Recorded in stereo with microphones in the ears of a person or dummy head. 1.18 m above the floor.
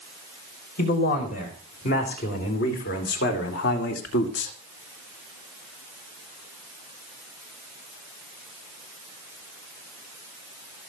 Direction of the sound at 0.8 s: 45° left (ahead or behind).